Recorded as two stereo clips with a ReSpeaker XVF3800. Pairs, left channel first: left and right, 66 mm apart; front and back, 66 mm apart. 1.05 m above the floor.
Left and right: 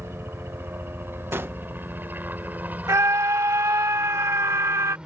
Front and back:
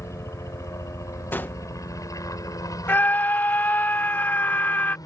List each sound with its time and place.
0.0 s a helicopter: 40° right; by 5.1 s 15° right
1.3 s a gunshot: 50° right
2.9 s a scream: 55° right